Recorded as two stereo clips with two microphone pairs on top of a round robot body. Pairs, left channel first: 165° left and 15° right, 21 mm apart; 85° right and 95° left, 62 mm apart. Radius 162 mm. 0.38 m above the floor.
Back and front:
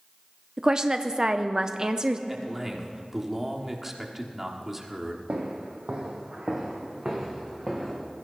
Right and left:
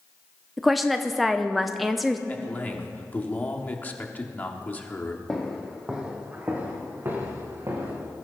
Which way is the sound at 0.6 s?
30° right.